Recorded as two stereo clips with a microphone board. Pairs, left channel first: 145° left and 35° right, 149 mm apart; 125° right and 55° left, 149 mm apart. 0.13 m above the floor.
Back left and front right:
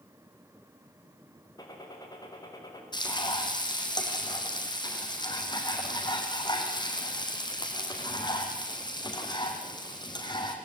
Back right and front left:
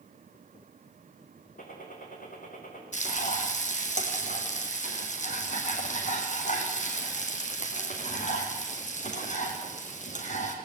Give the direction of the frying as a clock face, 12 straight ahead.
5 o'clock.